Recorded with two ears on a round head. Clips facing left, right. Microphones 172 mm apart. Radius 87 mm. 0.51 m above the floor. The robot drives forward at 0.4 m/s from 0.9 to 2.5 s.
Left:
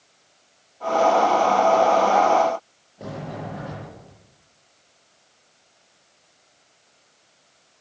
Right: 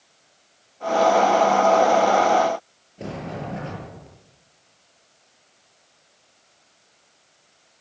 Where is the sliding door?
30° right (ahead or behind), 8.5 m.